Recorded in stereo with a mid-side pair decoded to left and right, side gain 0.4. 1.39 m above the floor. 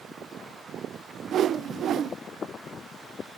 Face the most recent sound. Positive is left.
turn(degrees=-65)